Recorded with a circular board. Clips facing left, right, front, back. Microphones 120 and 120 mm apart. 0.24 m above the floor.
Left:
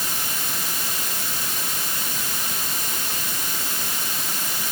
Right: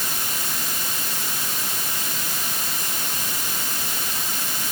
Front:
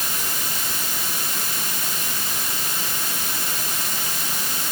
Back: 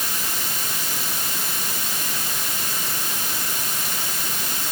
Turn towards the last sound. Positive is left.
No sound to turn to.